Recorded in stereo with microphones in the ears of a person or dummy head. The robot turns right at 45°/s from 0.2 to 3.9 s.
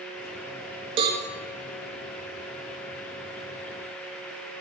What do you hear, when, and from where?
1.0 s a cowbell: 30° right (ahead or behind), 1.0 m; by 1.2 s 25° right (ahead or behind), 1.0 m